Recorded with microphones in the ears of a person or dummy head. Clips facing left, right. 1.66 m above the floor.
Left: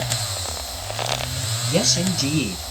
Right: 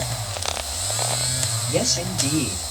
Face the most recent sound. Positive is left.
turn(degrees=60)  # may be behind; listen again after turning